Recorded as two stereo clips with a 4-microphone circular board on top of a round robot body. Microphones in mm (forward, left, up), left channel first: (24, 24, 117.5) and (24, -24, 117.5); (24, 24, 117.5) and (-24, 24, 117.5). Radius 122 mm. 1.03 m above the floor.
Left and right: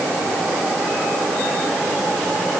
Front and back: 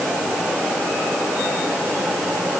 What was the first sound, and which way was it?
Only background noise.